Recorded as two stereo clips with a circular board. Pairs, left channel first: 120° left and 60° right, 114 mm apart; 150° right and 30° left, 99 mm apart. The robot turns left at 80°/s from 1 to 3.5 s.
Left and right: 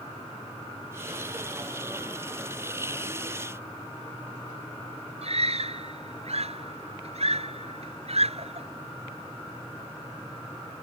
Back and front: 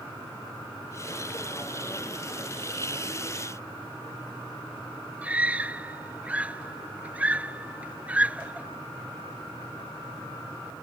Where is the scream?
45° right.